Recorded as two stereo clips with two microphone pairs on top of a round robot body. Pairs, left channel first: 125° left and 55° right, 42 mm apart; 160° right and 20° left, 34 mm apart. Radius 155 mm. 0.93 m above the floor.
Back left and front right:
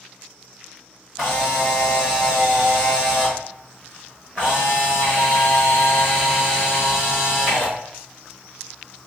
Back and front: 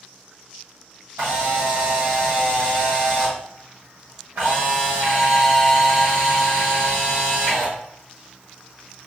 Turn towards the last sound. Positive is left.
turn(degrees=25)